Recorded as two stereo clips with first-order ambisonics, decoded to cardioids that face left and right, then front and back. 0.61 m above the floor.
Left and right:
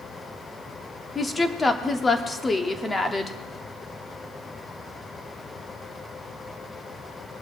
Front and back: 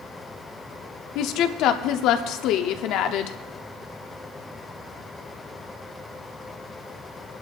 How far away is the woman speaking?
About 0.9 m.